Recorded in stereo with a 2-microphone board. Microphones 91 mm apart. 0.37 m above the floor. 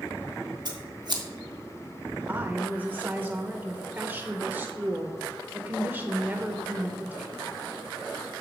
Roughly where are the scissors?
Right.